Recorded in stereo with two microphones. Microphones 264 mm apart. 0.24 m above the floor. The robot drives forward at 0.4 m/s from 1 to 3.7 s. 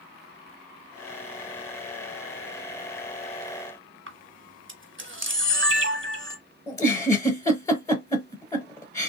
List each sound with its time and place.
4.1 s a camera shutter: 50° right (ahead or behind), 0.9 m
6.7 s a giggle: 10° left (ahead or behind), 1.0 m